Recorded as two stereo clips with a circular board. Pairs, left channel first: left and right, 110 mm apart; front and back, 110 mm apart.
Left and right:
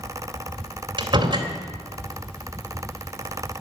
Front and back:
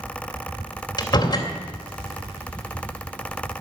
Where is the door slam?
50° right, 2.5 m.